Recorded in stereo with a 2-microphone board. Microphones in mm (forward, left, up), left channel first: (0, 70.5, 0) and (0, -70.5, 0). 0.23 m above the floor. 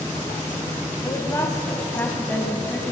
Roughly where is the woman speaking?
Left.